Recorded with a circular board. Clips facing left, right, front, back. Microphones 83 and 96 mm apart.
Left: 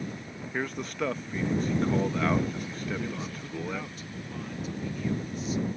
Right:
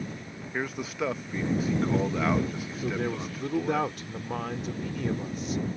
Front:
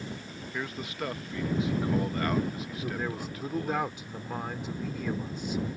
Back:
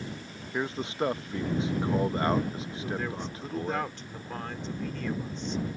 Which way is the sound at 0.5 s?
170° right.